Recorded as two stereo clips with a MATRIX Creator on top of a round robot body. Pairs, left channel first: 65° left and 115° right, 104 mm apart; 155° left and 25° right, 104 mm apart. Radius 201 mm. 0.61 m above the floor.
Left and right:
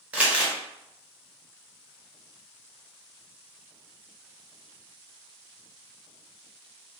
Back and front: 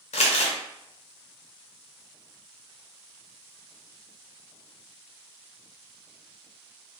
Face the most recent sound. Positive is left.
turn(degrees=170)